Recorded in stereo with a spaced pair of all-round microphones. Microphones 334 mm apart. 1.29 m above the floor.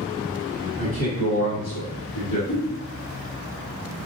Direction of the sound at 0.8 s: 40° left (ahead or behind).